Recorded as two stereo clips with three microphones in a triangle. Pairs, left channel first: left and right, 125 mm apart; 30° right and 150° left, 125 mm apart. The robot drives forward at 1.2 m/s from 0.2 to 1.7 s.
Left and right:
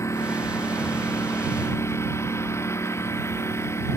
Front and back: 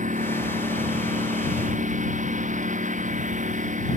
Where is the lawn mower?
160° left.